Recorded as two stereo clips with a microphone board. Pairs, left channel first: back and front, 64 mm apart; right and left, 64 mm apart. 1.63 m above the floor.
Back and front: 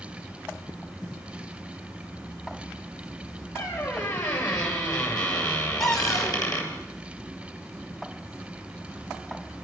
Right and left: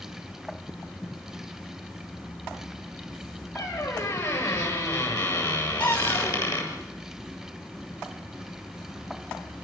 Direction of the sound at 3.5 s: 145° right.